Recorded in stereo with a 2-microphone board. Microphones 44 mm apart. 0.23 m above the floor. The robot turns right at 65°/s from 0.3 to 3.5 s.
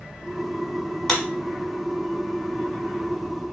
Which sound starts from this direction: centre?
A clap, at 1.1 s.